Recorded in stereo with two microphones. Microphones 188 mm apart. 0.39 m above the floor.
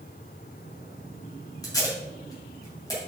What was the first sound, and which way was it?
Tape being pulled, 20° left (ahead or behind).